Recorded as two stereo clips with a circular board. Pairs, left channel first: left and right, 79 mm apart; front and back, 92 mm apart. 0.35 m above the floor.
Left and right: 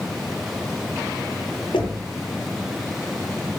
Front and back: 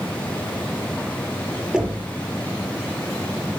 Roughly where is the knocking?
Left.